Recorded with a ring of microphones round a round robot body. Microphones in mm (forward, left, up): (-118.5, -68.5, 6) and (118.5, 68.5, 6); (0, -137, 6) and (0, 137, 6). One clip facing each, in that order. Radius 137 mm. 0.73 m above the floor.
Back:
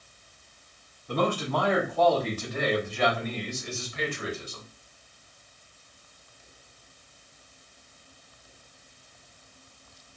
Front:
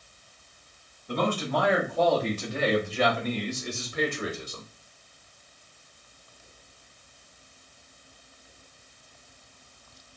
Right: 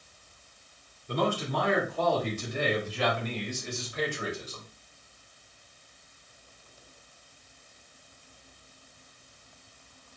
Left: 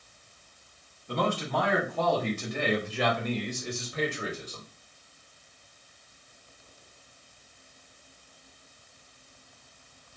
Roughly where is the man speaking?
Left.